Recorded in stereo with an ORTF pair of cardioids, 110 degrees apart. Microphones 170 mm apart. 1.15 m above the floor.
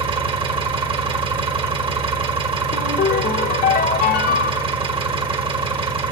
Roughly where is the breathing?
No breathing in this recording.